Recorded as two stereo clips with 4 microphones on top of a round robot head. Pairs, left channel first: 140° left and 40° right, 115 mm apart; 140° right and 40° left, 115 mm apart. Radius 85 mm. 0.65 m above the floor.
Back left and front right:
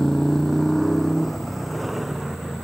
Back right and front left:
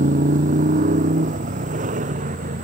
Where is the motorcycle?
55° left; by 2.6 s 50° left.